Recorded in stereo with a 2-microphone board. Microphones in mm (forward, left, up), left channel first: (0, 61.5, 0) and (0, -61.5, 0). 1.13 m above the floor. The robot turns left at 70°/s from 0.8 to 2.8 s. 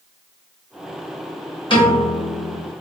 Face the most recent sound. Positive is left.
turn(degrees=10)